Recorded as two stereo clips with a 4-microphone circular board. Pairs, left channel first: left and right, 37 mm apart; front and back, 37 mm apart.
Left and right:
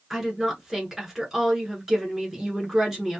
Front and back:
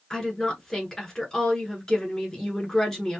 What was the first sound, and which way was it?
A woman speaking, 40° right.